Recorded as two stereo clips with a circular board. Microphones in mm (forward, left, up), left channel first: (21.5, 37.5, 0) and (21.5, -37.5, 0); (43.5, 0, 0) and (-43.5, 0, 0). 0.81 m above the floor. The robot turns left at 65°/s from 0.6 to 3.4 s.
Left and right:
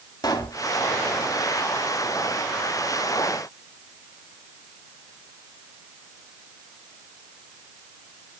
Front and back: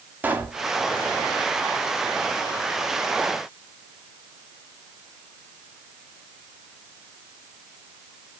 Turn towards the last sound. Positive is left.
turn(degrees=-70)